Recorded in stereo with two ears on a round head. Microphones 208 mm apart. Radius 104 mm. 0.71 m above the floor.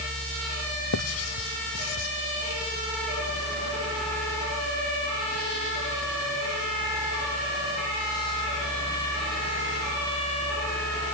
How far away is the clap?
No clap in this recording.